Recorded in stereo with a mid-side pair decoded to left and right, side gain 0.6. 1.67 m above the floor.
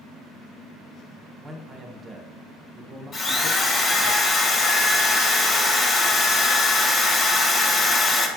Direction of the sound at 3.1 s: 40° left.